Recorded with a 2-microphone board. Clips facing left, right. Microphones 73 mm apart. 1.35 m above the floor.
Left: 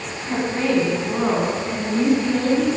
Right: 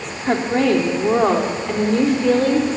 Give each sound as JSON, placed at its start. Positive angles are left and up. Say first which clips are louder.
{"t": 0.2, "sound": "a woman speaking", "louder": "right 5 dB", "side_deg": -85, "distance_m": 3.5}